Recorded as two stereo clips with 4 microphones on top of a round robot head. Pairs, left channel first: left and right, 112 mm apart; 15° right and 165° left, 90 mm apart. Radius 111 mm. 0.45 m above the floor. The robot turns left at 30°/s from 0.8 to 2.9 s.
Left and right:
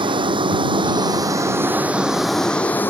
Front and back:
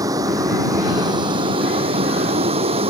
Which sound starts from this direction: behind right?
A vehicle, at 0.0 s.